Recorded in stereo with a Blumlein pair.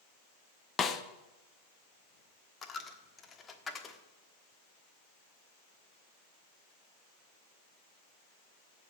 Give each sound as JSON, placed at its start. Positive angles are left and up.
{"t": 0.8, "sound": "a snare drum", "azimuth_deg": 20, "distance_m": 0.9}
{"t": 2.6, "sound": "a dropped coin", "azimuth_deg": 15, "distance_m": 1.3}